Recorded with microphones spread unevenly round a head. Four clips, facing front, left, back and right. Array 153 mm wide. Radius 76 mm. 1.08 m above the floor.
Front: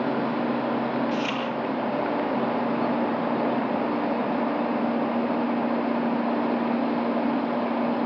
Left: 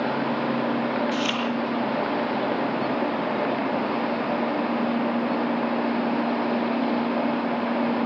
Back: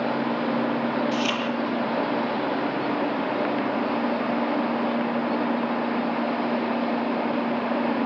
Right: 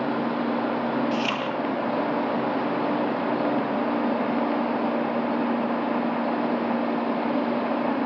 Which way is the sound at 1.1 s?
65° right.